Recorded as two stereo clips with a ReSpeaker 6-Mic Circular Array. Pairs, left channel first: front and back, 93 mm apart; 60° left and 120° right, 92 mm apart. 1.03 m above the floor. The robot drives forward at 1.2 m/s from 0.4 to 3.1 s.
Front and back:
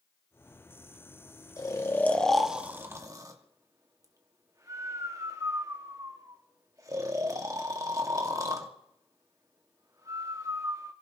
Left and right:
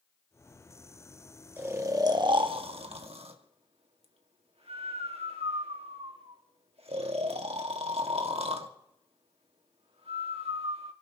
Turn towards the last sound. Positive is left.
turn(degrees=-125)